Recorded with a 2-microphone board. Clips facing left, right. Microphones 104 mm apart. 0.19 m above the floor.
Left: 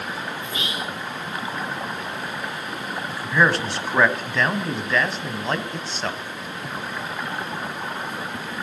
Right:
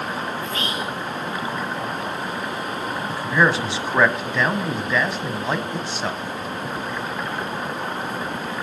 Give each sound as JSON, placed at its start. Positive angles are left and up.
{"t": 0.4, "sound": "whispering", "side_deg": 15, "distance_m": 5.5}
{"t": 3.1, "sound": "a man speaking", "side_deg": -5, "distance_m": 1.0}